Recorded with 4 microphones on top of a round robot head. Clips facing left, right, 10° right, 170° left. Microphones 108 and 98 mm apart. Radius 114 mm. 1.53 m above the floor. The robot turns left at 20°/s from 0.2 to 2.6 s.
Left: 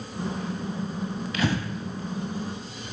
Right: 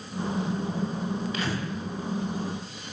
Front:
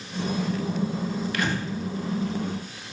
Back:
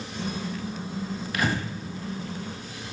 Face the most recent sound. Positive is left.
turn(degrees=65)